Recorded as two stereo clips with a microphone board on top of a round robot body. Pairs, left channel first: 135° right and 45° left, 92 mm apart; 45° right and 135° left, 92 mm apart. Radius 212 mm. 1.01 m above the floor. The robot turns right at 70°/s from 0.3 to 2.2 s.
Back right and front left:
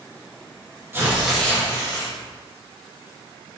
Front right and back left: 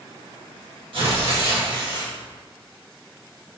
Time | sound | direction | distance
0.9 | tearing paper | 110° left | 1.6 m